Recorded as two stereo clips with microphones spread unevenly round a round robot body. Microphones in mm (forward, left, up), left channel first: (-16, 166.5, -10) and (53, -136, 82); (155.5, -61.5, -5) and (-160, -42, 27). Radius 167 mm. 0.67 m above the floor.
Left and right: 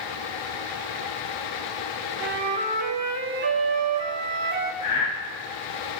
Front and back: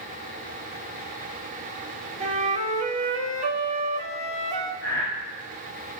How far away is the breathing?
About 2.5 m.